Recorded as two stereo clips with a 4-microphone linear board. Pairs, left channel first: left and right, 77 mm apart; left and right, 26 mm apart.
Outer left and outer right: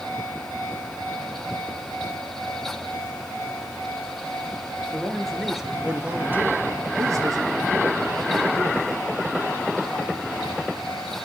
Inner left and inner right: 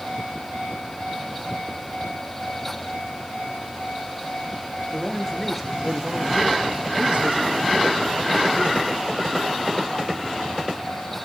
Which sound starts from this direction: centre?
A man speaking, at 4.9 s.